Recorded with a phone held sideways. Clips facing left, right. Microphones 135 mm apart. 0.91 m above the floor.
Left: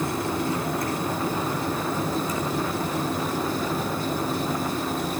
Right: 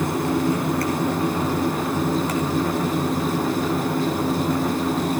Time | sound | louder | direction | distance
0.0 | a fan | right 5 dB | 75° right (ahead or behind) | 3 m